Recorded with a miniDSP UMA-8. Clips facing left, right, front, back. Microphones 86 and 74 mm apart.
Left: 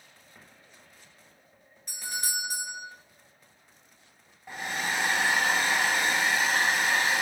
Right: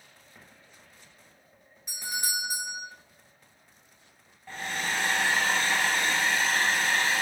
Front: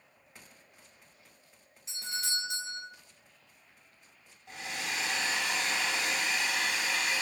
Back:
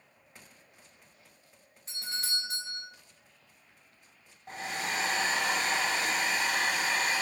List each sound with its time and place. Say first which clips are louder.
1.9 s a doorbell: right 2 dB, even; 175° right, 1.9 m
4.5 s a hair dryer: left 1 dB, back 3 dB; 160° left, 0.6 m